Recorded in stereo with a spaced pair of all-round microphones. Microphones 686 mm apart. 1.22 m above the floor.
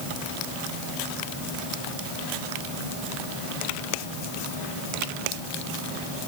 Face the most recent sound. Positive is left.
No sound to turn to.